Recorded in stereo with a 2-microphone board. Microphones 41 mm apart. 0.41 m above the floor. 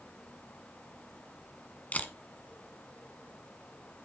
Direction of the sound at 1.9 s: 40° left (ahead or behind).